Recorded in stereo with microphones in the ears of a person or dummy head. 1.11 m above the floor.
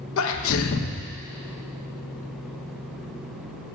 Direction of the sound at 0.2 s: 65° left (ahead or behind).